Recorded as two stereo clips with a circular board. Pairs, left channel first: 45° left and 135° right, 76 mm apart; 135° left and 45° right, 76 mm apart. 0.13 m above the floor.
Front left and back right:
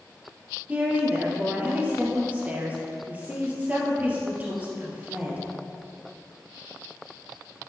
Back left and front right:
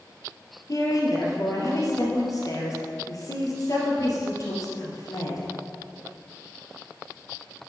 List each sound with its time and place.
0.7 s a woman speaking: 160° left, 2.5 m